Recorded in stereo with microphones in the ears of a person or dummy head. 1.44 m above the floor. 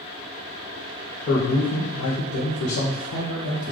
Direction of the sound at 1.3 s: 50° left (ahead or behind).